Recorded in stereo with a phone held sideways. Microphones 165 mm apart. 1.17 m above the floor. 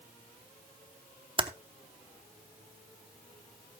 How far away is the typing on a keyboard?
About 0.8 m.